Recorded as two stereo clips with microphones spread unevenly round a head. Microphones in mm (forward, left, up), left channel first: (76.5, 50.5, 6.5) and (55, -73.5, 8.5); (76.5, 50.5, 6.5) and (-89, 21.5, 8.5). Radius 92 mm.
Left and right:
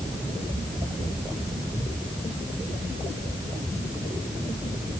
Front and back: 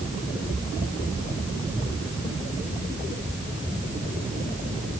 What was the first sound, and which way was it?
Only background noise.